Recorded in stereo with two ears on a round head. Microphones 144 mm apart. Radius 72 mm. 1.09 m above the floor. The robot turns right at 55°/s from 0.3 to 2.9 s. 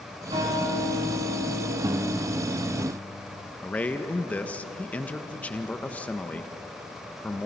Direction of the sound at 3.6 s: 10° left (ahead or behind).